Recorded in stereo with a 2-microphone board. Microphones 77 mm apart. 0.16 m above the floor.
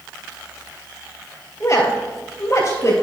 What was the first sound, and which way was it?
A woman speaking, 40° left (ahead or behind).